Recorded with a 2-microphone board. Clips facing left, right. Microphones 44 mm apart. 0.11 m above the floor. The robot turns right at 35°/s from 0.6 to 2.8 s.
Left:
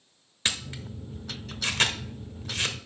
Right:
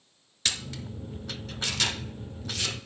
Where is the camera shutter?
25° left (ahead or behind), 1.0 m; by 2.8 s 30° left (ahead or behind), 1.0 m.